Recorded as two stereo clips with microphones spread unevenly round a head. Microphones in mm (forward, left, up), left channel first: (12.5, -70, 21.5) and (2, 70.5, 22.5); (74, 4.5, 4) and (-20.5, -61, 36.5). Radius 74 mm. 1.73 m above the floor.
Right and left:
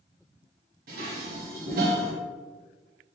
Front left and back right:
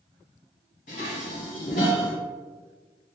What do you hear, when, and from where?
0.9 s dishes clattering: 80° left, 1.3 m